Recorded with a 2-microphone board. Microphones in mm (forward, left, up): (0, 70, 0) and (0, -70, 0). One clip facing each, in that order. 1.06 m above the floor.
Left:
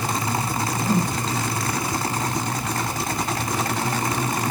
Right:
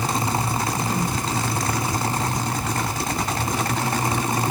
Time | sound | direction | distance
0.8 | a whoosh | 40° left (ahead or behind) | 3.5 m